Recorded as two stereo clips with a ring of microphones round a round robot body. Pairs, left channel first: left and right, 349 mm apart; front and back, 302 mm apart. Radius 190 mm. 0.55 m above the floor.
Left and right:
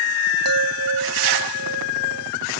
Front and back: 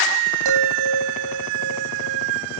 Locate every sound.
0.5 s a chime: 140° right